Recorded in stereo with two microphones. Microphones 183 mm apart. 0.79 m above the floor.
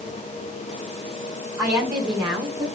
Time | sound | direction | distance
1.6 | a woman speaking | 20° right (ahead or behind) | 6.5 m